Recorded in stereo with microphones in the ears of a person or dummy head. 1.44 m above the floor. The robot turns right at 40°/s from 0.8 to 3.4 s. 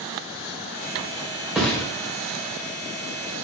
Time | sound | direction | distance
1.6 | a thud | centre (ahead or behind) | 2 m